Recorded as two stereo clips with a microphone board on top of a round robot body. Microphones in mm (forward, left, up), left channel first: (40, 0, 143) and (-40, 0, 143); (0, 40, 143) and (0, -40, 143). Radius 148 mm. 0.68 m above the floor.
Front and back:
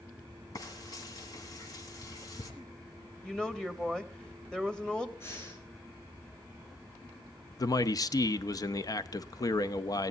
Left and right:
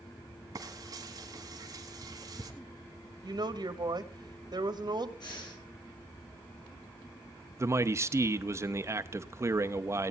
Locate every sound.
0.6 s frying: 45° right, 1.8 m
3.2 s a woman speaking: 80° right, 2 m
5.2 s breathing: 60° left, 4.5 m
7.6 s a man speaking: 35° right, 1.0 m